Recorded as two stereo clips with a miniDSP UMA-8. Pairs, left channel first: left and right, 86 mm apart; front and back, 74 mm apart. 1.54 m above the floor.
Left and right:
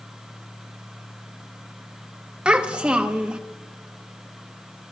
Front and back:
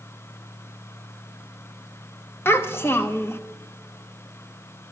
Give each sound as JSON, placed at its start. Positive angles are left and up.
{"t": 2.5, "sound": "a child speaking", "azimuth_deg": -20, "distance_m": 0.8}